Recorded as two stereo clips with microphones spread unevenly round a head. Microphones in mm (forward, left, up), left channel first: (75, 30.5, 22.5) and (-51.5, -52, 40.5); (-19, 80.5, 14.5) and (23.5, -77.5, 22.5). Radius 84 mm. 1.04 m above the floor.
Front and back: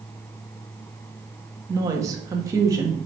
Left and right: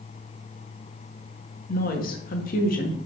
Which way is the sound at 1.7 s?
140° left.